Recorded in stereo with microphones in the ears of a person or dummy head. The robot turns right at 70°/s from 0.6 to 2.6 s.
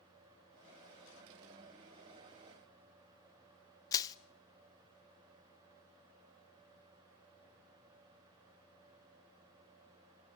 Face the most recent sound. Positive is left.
turn(degrees=20)  # may be behind; listen again after turning